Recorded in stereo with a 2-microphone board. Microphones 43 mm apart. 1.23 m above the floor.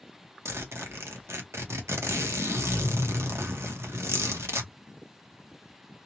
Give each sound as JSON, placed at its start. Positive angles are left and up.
{"t": 0.5, "sound": "a zipper", "side_deg": -85, "distance_m": 0.7}